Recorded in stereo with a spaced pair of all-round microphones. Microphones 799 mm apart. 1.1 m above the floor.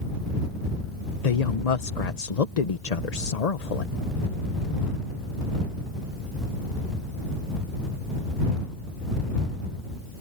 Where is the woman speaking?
55° left (ahead or behind).